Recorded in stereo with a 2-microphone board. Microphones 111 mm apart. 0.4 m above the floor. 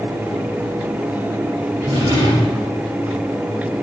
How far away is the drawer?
About 3 m.